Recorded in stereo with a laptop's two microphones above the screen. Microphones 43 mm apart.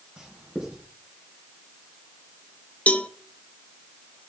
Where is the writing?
30° right (ahead or behind), 3 m.